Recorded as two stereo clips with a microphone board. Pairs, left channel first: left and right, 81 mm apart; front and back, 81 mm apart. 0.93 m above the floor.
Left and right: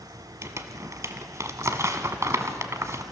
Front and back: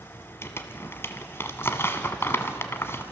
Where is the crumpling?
50° right, 1.2 m.